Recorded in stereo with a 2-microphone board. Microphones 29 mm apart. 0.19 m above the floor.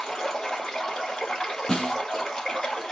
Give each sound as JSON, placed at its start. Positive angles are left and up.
{"t": 0.0, "sound": "running water", "side_deg": 15, "distance_m": 1.8}
{"t": 1.7, "sound": "a snare drum", "side_deg": 20, "distance_m": 2.5}